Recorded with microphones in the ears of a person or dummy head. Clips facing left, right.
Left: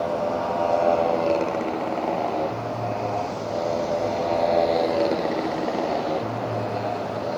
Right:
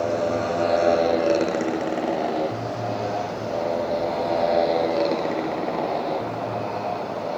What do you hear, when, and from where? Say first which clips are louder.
0.0 s a motorcycle: right 2 dB; 25° right (ahead or behind); by 7.4 s 15° left (ahead or behind)